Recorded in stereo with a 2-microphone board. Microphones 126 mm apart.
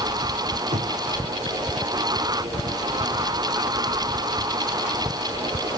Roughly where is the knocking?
Right.